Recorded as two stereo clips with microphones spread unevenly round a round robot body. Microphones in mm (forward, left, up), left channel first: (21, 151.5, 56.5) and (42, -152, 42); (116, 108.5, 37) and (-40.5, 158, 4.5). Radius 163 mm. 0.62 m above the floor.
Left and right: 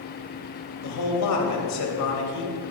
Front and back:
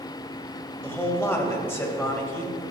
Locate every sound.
0.8 s a man speaking: 60° left, 3.5 m